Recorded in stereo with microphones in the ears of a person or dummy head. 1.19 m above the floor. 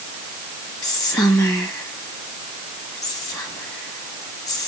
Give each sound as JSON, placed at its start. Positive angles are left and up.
{"t": 0.8, "sound": "whispering", "side_deg": 20, "distance_m": 1.6}